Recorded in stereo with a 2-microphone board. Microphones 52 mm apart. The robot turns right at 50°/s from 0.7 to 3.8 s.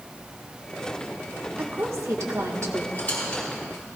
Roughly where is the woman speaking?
Behind right.